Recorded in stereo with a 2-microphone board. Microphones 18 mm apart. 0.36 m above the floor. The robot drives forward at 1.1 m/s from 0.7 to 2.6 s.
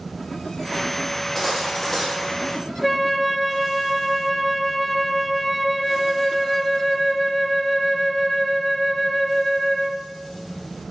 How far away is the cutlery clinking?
About 8 m.